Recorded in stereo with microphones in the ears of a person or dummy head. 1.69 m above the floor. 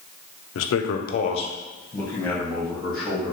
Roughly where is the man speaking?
Left.